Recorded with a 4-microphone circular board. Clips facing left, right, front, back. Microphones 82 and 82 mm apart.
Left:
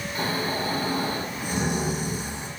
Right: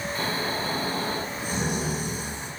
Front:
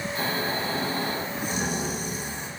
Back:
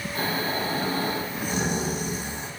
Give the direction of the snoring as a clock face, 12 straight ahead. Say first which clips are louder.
Left 3 dB, back 2 dB; 7 o'clock.